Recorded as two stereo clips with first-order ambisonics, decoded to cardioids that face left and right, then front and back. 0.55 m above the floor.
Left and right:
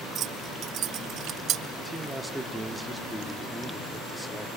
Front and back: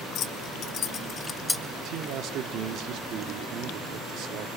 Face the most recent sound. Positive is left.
turn(degrees=180)